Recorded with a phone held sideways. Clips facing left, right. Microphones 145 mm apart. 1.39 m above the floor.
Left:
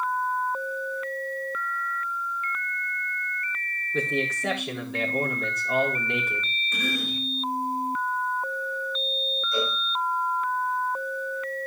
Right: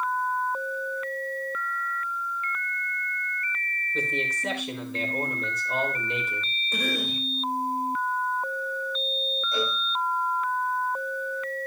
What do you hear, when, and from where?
3.9 s a man speaking: 85° left, 4 m
6.7 s a cough: 30° right (ahead or behind), 2.5 m
9.5 s a cowbell: 25° right (ahead or behind), 8 m